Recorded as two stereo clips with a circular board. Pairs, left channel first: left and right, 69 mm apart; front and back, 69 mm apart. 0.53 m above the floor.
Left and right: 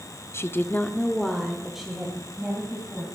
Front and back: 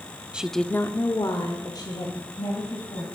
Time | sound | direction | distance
0.3 | a woman speaking | 115° left | 0.8 m